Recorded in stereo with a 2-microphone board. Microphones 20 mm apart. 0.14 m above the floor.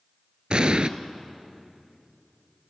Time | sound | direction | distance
0.5 | an explosion | 50° right (ahead or behind) | 0.6 m